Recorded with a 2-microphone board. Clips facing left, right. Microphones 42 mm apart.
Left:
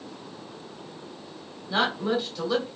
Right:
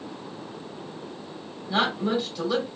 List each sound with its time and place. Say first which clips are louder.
1.7 s a woman speaking: right 1 dB; 5° right (ahead or behind), 2 m